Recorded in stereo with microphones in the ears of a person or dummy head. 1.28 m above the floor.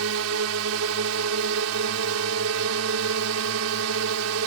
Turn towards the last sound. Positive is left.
turn(degrees=-75)  # may be behind; listen again after turning